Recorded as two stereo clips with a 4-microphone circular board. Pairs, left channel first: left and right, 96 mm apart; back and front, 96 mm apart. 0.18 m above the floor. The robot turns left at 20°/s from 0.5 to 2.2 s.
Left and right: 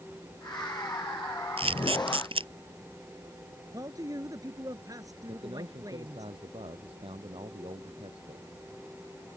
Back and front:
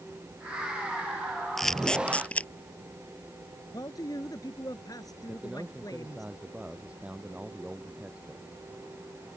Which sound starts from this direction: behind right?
A man speaking, at 3.7 s.